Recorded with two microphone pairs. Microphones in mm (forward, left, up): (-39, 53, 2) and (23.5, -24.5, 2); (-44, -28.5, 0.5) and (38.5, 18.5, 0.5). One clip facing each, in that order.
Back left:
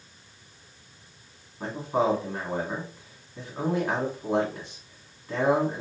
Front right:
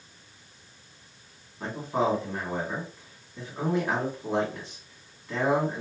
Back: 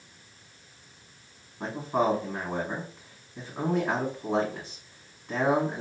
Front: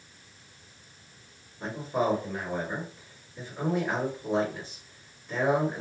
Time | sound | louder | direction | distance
1.6 | a man speaking | back left 2 dB, back 2 dB | 160° right | 1.6 m